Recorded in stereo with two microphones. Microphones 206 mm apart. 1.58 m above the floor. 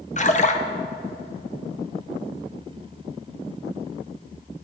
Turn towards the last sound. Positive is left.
turn(degrees=35)  # may be behind; listen again after turning